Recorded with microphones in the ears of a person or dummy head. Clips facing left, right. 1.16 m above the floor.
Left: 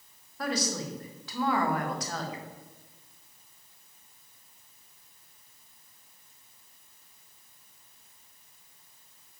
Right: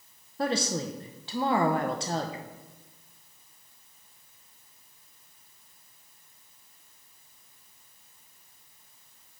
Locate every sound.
0.4 s a woman speaking: 20° right (ahead or behind), 0.7 m